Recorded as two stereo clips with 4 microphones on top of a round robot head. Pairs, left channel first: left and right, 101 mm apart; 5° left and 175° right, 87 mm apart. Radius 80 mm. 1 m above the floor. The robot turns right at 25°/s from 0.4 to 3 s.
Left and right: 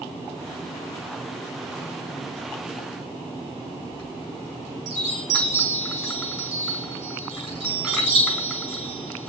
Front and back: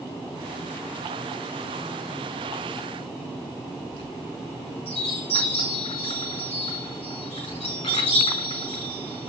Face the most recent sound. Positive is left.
turn(degrees=-5)